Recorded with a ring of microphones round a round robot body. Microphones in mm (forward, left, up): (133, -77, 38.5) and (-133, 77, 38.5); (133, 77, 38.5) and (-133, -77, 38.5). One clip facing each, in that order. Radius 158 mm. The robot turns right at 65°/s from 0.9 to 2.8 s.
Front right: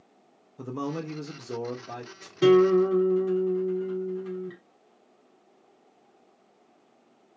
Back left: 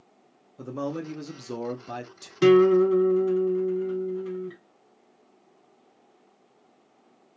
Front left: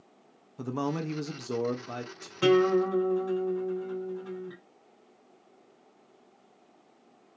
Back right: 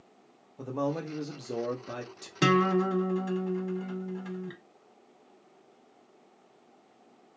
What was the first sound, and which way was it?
A man speaking, 50° left.